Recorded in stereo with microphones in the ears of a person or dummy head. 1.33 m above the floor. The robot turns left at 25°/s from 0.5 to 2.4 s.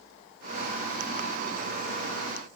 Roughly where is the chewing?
I don't hear chewing.